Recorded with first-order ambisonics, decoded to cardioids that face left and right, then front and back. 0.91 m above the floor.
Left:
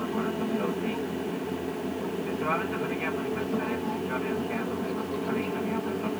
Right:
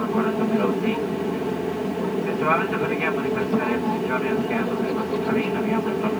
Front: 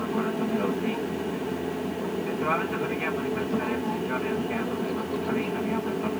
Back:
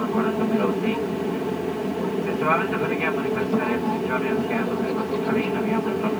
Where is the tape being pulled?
No tape being pulled in this recording.